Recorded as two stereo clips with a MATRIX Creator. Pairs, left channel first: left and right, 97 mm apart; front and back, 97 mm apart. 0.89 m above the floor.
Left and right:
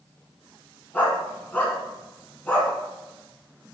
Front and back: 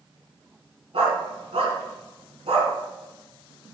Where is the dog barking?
165° left, 3.5 m.